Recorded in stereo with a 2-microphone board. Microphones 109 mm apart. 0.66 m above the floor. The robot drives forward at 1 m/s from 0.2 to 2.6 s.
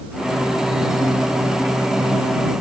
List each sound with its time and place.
Only background noise.